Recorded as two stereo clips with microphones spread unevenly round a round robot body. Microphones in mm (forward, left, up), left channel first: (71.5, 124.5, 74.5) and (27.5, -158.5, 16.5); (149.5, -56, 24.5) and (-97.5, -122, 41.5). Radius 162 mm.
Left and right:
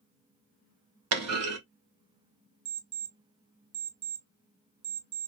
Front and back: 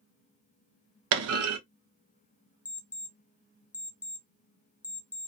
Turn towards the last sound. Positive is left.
turn(degrees=-70)